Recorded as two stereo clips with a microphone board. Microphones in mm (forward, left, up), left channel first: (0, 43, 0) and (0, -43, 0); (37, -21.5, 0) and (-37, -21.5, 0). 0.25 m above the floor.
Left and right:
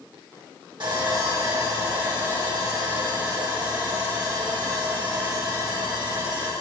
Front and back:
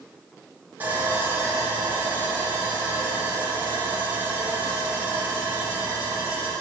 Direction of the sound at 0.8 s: 115° right.